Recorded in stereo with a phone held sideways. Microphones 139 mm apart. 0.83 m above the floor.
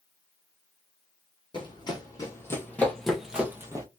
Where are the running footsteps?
35° left (ahead or behind), 1.5 m; by 3.9 s 25° right (ahead or behind), 1.0 m.